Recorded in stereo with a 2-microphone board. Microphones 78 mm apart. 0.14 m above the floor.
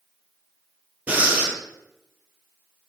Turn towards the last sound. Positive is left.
turn(degrees=-20)  # may be behind; listen again after turning